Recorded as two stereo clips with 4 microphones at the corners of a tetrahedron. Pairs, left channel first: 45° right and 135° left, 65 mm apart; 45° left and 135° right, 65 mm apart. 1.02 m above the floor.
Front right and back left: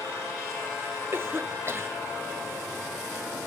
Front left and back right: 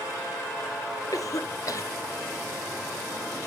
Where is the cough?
80° left, 0.8 m.